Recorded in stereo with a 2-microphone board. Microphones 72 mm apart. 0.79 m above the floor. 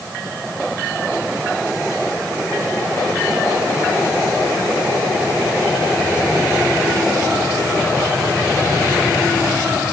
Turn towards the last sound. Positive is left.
No sound to turn to.